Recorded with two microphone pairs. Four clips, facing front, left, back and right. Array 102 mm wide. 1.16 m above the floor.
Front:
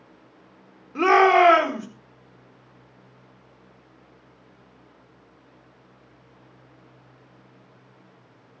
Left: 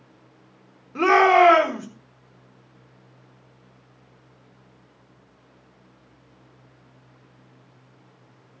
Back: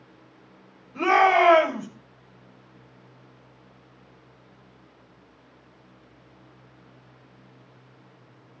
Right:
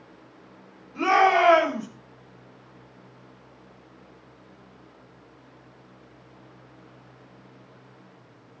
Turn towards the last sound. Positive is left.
turn(degrees=40)